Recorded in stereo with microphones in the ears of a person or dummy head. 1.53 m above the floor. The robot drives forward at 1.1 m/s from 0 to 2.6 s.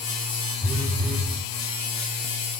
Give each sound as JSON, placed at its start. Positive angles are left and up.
{"t": 0.6, "sound": "a phone buzzing", "side_deg": 10, "distance_m": 1.7}